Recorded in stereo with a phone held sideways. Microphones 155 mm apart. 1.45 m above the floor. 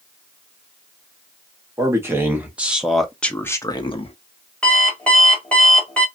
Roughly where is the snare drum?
I don't hear a snare drum.